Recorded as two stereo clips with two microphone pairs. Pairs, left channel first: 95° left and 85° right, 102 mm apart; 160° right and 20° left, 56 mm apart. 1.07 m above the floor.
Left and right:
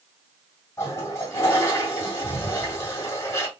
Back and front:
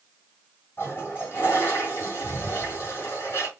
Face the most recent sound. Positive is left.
turn(degrees=155)